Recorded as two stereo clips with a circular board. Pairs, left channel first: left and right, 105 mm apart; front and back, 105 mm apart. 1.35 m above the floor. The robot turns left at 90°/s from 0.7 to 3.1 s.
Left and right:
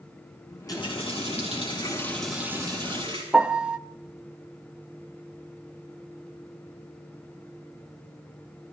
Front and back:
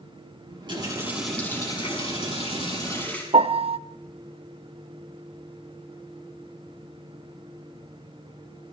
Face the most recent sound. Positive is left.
turn(degrees=-170)